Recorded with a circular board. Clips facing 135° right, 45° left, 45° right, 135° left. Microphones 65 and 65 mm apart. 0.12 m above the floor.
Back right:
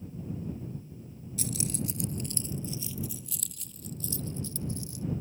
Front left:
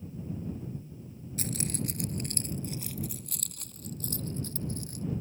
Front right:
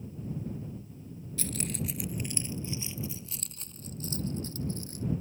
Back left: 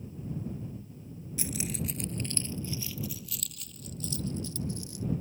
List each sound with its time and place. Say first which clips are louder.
1.4 s keys jangling: even, even; 65° left; by 5.0 s 5° left